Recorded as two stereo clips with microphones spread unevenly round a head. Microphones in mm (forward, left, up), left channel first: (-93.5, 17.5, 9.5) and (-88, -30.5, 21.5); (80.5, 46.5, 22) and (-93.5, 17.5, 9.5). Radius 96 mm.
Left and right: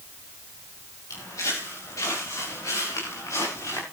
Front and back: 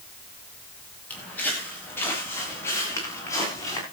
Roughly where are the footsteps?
Left.